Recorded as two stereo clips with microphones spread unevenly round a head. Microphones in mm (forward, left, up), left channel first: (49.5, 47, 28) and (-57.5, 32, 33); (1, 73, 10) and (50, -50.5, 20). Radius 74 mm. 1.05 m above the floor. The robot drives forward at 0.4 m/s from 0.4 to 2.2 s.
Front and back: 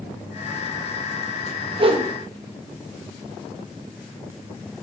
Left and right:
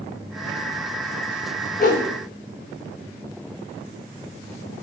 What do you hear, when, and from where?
1.8 s a whoosh: 150° left, 0.7 m; by 2.1 s 155° left, 0.8 m